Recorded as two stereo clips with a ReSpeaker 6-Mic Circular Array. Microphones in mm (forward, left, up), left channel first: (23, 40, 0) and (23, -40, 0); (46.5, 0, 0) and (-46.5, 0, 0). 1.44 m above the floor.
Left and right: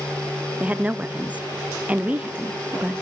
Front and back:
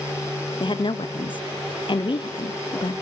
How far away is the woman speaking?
About 0.6 m.